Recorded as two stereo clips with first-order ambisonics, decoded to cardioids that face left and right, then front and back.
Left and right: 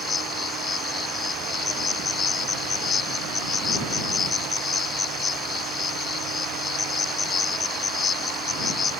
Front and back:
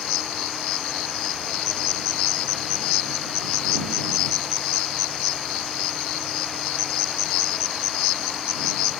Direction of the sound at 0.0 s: 20° left.